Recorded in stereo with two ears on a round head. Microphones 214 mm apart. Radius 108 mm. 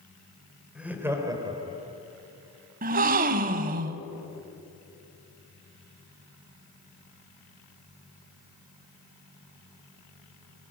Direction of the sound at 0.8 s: 5° right (ahead or behind).